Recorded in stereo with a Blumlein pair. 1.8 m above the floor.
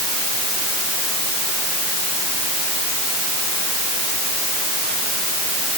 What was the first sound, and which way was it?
Only background noise.